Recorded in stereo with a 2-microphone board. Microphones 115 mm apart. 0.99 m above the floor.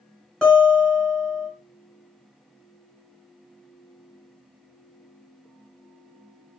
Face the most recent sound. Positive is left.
turn(degrees=5)  # may be behind; listen again after turning